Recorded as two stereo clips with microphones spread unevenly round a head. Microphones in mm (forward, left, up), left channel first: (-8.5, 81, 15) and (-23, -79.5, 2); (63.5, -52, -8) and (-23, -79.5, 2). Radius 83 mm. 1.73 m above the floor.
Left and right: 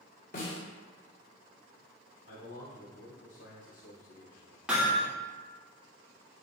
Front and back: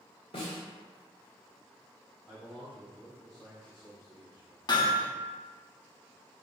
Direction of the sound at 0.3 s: 60° left.